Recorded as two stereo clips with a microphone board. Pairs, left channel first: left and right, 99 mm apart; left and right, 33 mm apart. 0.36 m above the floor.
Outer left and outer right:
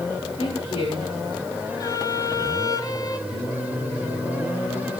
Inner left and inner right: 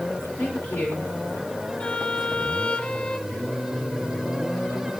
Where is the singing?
60° left (ahead or behind), 8.5 m.